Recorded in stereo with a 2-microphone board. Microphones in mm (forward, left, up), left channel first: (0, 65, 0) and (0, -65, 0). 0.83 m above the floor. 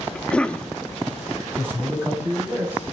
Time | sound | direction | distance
0.1 | a cough | 10° left (ahead or behind) | 1.1 m
1.6 | a man speaking | 15° right (ahead or behind) | 6.5 m